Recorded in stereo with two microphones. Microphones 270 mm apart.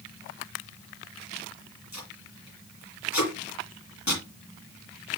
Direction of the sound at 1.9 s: 80° left.